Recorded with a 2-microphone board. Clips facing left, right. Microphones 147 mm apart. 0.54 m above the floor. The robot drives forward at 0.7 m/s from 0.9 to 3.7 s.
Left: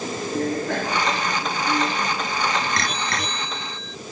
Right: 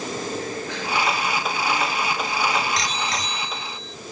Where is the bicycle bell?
55° left (ahead or behind); by 4.0 s 70° left (ahead or behind).